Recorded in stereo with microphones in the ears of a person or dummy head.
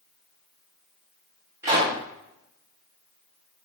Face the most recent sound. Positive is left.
turn(degrees=-15)  # may be behind; listen again after turning